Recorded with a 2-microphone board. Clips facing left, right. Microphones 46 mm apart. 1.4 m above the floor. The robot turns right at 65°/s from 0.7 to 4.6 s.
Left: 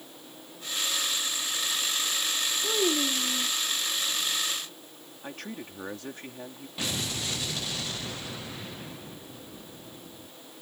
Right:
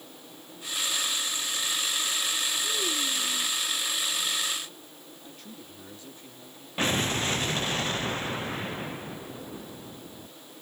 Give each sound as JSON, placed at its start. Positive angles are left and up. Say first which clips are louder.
{"t": 2.6, "sound": "a child speaking", "louder": "left 3 dB", "azimuth_deg": 60}
{"t": 5.2, "sound": "a man speaking", "louder": "left 9 dB", "side_deg": 70}
{"t": 6.8, "sound": "an explosion", "louder": "right 6 dB", "side_deg": -40}